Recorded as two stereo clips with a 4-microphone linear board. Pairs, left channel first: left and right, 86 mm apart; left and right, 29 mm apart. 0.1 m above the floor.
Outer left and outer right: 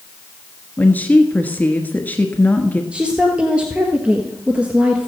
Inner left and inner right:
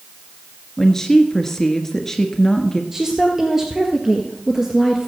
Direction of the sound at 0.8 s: 20° left (ahead or behind).